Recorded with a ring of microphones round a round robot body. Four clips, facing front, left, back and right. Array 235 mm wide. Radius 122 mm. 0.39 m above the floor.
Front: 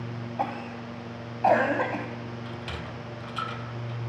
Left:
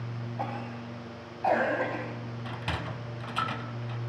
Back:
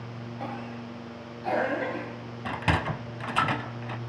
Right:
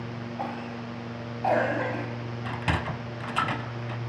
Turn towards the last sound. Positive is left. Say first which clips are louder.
# right 7 dB, back 9 dB
turn(degrees=-160)